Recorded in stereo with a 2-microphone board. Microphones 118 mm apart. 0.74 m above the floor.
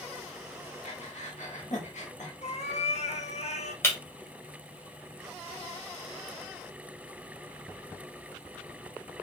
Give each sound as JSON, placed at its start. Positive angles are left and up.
{"t": 0.8, "sound": "breathing", "side_deg": 85, "distance_m": 1.1}
{"t": 2.4, "sound": "a cat meowing", "side_deg": 65, "distance_m": 0.6}
{"t": 3.8, "sound": "breaking glass", "side_deg": 20, "distance_m": 1.7}